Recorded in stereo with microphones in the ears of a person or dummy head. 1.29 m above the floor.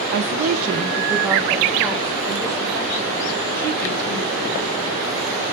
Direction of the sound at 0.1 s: 70° right (ahead or behind).